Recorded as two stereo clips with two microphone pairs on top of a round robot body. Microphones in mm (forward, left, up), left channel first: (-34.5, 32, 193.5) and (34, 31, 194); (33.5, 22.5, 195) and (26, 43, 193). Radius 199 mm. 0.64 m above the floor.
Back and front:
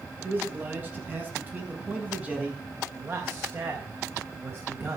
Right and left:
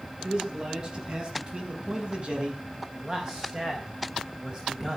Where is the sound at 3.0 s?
50° left, 4.5 m.